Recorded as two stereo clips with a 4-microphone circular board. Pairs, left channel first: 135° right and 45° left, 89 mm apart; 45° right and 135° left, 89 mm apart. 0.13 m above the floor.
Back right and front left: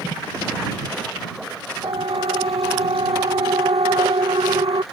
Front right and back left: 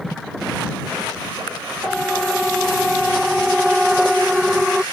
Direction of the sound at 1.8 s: 45° left.